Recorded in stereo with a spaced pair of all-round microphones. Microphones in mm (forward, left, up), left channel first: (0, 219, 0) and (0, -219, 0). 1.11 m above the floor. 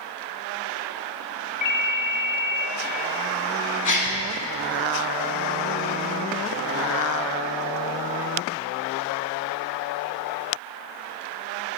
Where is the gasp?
45° left (ahead or behind), 1.2 m.